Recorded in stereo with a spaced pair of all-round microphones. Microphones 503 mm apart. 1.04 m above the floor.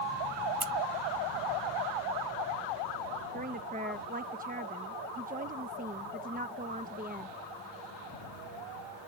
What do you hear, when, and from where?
0.6 s scissors: 85° right
3.3 s a woman speaking: 15° right (ahead or behind)